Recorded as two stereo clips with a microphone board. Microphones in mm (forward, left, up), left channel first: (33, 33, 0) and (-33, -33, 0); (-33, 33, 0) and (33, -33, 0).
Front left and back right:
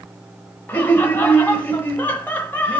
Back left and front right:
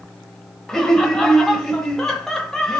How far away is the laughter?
About 1.0 m.